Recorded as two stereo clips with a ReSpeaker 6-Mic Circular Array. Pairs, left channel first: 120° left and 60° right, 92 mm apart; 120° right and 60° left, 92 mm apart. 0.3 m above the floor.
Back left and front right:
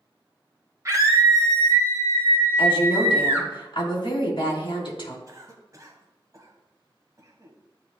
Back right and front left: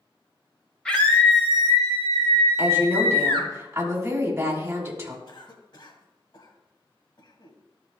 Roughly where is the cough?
Right.